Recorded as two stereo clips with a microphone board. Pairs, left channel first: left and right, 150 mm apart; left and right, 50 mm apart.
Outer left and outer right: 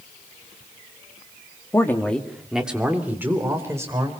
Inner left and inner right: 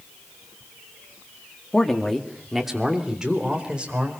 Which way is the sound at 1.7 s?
20° left (ahead or behind).